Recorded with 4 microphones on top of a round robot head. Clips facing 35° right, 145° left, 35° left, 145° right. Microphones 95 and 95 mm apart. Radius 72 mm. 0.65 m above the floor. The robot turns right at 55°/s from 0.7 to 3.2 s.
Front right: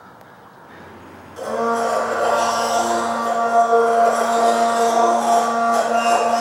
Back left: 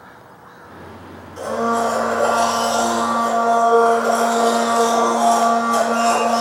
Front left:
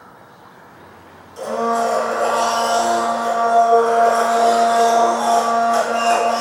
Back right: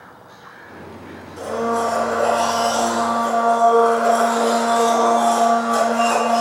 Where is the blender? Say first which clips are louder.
Back left 1 dB, front left 2 dB; 40° left, 4 m; by 6.4 s 140° left, 4 m.